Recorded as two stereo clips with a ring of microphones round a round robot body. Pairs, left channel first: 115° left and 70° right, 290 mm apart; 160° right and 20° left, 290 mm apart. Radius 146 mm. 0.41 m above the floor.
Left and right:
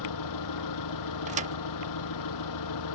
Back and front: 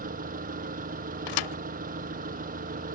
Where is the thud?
135° right.